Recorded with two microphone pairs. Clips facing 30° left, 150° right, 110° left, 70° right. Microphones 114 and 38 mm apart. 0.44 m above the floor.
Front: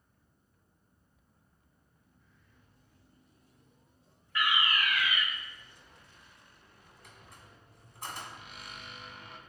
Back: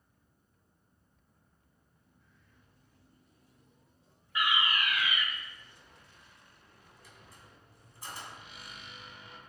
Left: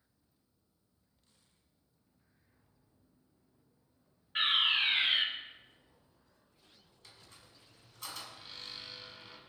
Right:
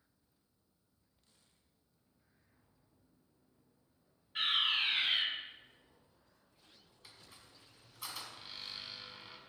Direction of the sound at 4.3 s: 145° left.